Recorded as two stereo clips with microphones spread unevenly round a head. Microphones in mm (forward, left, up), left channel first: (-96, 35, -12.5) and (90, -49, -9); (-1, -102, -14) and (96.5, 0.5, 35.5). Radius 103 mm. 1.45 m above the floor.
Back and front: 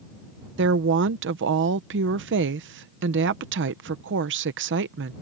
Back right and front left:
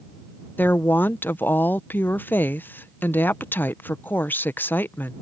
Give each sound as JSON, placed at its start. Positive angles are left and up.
{"t": 0.6, "sound": "a woman speaking", "azimuth_deg": -50}